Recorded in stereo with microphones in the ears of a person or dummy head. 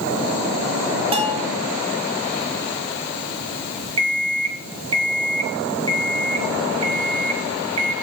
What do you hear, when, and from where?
1.1 s a bell: 20° right (ahead or behind), 0.8 m
4.0 s an alarm clock: 30° right (ahead or behind), 1.1 m